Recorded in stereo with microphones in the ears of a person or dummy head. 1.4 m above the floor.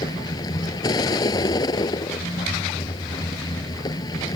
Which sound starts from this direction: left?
A vehicle, at 0.0 s.